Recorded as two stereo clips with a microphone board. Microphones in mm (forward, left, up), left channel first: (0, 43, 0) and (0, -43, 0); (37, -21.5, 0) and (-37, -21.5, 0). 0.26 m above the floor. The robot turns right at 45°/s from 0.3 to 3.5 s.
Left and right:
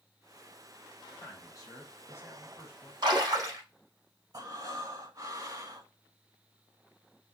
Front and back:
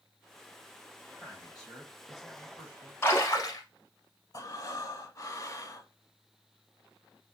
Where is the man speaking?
55° left, 1.8 m; by 2.9 s 135° left, 1.8 m.